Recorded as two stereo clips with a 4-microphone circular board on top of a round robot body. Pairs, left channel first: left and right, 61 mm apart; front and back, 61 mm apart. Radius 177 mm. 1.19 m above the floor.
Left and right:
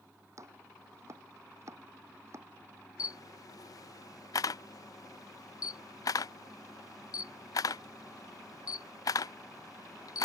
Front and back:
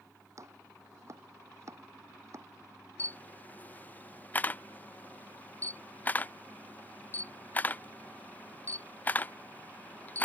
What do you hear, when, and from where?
0.4 s chopping: 135° right
3.0 s a camera shutter: 65° left